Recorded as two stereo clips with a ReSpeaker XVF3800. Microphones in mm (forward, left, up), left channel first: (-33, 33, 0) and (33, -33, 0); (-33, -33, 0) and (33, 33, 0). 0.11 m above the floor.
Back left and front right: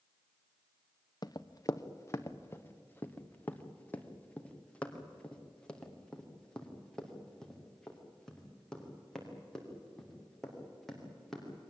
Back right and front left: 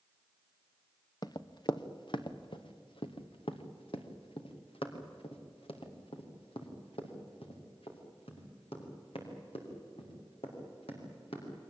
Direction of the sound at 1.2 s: Straight behind.